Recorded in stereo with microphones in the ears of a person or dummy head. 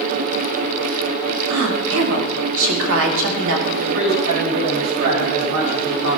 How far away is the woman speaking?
About 4 m.